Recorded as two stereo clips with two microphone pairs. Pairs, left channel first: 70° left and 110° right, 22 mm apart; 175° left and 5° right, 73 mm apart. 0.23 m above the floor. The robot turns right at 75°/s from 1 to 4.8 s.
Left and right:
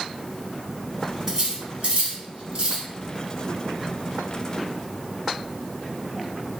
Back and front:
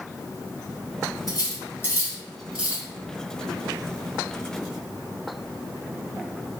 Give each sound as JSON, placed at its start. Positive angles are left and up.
{"t": 1.3, "sound": "cutlery clinking", "azimuth_deg": -175, "distance_m": 1.1}